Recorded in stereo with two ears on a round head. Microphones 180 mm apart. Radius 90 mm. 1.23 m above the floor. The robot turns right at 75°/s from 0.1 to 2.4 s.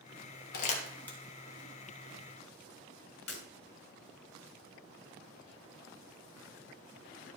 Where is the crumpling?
50° left (ahead or behind), 1.4 m; by 1.2 s centre (ahead or behind), 1.4 m.